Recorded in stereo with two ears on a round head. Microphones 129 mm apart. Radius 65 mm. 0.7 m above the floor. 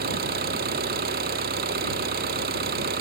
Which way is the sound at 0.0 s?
80° right.